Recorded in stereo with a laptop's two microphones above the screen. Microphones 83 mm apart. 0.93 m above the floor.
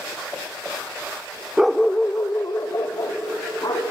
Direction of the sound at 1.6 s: 10° right (ahead or behind).